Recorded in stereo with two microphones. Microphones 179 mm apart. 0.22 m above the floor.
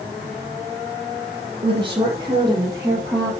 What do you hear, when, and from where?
1.6 s a woman speaking: 25° right (ahead or behind), 5.5 m; by 3.4 s 10° right (ahead or behind), 6 m